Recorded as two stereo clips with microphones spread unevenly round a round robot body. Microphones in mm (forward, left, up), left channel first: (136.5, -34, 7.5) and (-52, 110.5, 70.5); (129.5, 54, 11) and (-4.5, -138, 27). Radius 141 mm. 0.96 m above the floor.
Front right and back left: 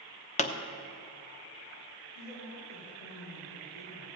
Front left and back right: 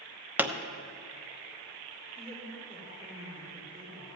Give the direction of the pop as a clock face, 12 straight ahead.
1 o'clock.